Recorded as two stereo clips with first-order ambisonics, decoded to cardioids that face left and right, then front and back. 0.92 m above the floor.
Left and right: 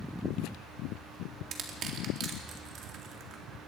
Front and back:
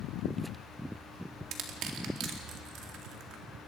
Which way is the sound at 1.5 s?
140° right.